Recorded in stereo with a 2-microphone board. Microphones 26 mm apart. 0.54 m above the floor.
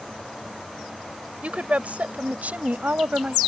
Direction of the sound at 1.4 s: 55° right (ahead or behind).